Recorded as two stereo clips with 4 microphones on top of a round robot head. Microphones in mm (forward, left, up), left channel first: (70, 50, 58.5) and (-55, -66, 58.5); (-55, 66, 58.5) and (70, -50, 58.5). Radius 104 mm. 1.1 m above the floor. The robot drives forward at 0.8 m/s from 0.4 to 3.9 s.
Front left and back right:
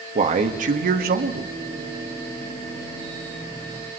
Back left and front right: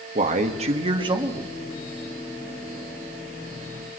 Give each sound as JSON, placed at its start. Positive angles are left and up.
{"t": 0.1, "sound": "a man speaking", "azimuth_deg": -90, "distance_m": 2.0}